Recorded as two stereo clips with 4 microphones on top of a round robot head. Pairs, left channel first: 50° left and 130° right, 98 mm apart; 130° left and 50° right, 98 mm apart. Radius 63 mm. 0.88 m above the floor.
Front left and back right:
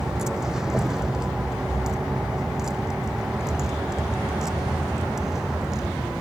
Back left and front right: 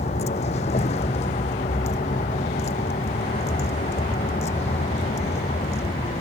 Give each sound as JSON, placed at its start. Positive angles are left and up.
{"t": 0.0, "sound": "a vehicle", "azimuth_deg": 145}